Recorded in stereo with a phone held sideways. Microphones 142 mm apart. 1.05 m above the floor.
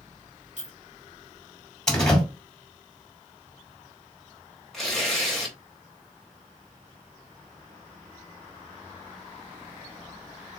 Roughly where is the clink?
Right.